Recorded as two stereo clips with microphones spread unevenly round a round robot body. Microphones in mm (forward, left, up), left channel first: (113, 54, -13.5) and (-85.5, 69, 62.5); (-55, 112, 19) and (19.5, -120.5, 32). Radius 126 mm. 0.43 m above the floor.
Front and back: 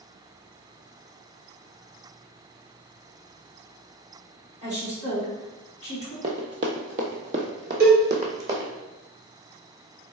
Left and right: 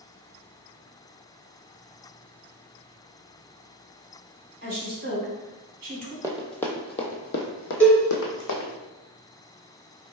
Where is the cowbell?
170° right, 1.7 m.